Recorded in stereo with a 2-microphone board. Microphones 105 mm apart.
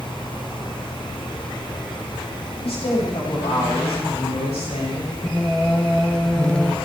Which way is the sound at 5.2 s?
10° left (ahead or behind).